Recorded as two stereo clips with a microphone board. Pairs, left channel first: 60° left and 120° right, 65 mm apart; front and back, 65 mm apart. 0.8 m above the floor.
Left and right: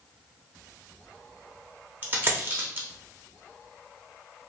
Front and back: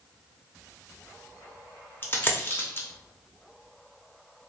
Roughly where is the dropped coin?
Ahead right.